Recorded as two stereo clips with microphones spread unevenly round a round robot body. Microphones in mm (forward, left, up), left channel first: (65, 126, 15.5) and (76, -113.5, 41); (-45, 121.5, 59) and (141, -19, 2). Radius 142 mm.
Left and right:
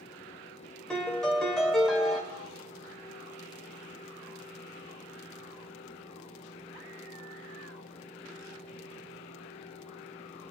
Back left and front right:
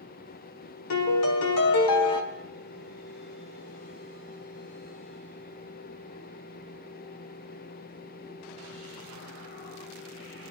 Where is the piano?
Straight behind, 1.2 m.